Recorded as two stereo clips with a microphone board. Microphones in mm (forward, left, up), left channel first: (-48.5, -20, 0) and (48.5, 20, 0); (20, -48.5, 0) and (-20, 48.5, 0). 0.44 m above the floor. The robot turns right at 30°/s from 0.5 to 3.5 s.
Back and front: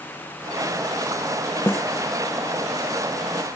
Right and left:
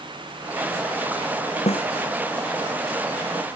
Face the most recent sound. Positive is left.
turn(degrees=-30)